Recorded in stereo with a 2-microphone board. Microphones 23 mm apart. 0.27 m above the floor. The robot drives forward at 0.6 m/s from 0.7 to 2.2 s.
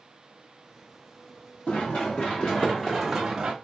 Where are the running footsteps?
70° left (ahead or behind), 2 m; by 3.5 s 30° right (ahead or behind), 1.2 m.